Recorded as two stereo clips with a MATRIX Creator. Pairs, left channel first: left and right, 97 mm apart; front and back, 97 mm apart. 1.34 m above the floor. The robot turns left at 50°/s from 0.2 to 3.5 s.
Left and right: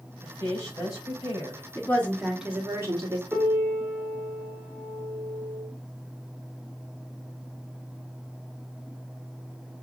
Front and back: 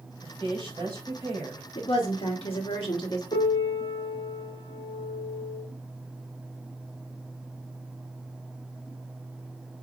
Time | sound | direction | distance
0.2 | a woman speaking | 165° left | 3 m
1.8 | a woman speaking | 25° left | 1.1 m
3.3 | a piano | 10° right | 1.2 m